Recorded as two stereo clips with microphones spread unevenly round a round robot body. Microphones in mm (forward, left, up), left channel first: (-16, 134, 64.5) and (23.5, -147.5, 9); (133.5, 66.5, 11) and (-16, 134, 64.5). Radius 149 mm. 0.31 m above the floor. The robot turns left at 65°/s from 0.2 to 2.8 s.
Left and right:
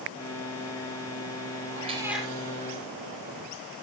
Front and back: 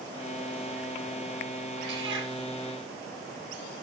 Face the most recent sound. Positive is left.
turn(degrees=145)